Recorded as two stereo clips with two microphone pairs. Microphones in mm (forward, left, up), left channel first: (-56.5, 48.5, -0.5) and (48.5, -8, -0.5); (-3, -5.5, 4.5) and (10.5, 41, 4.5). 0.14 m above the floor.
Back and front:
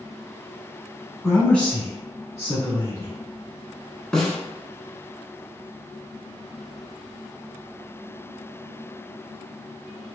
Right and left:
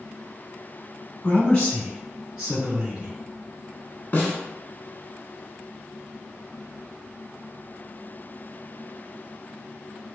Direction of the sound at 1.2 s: 130° right.